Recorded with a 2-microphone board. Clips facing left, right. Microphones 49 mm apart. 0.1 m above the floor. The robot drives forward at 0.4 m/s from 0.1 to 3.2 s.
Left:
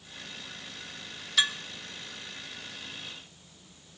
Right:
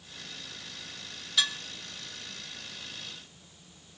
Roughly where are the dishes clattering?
Left.